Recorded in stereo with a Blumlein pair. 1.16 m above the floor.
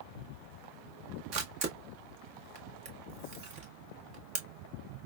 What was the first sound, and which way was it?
A camera shutter, 40° right.